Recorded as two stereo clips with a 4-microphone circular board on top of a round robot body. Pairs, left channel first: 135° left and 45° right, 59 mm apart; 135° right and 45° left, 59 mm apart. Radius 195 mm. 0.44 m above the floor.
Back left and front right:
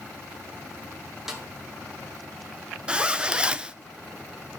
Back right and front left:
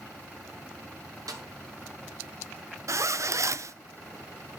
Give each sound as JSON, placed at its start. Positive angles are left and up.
{"t": 1.3, "sound": "a snare drum", "azimuth_deg": 40, "distance_m": 1.8}
{"t": 2.9, "sound": "a zipper", "azimuth_deg": 25, "distance_m": 0.7}